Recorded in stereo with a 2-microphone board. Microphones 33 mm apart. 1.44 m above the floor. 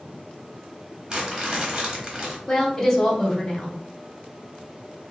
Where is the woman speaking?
15° left (ahead or behind), 1.2 m.